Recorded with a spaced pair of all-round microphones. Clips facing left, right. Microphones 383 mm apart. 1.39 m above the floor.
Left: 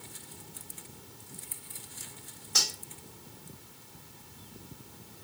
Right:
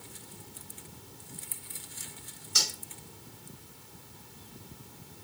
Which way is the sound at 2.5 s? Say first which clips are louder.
Even; 70° left (ahead or behind).